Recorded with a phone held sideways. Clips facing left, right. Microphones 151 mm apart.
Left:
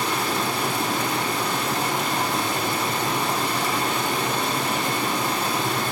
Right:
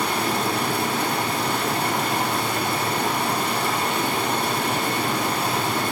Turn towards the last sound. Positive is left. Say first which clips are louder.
# right 1 dB
turn(degrees=-60)  # may be behind; listen again after turning